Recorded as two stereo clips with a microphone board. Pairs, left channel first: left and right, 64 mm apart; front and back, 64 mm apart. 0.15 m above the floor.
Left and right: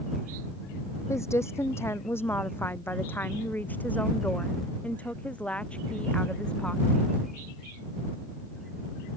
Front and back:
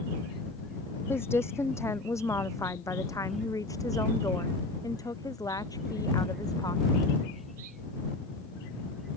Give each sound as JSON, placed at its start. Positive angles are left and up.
{"t": 1.1, "sound": "a woman speaking", "azimuth_deg": 50}